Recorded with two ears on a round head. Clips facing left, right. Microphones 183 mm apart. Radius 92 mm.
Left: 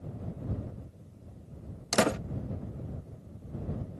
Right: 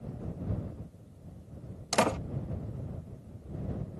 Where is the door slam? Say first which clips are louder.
Left 1 dB; 20° left (ahead or behind).